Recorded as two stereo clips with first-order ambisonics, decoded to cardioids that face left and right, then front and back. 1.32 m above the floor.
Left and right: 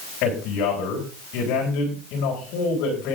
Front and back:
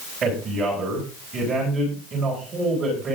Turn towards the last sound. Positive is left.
turn(degrees=120)